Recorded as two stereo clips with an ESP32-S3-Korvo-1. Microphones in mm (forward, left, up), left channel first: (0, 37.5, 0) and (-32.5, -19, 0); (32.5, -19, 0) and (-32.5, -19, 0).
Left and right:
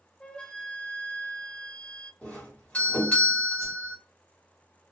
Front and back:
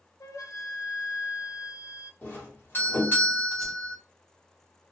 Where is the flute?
10° right, 0.6 m.